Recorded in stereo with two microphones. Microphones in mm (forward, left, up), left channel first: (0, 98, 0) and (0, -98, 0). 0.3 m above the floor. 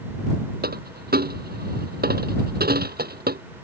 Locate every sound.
0.6 s a dropped coin: 55° right (ahead or behind)